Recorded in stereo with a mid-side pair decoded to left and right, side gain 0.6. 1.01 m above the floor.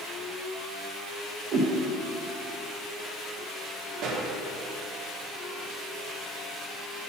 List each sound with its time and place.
1.5 s a whoosh: 55° right, 1.2 m
4.0 s a pop: 65° right, 1.3 m